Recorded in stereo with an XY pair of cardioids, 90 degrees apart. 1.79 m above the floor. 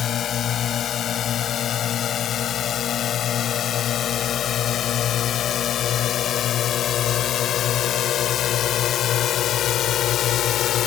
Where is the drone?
70° left; by 10.9 s 80° left.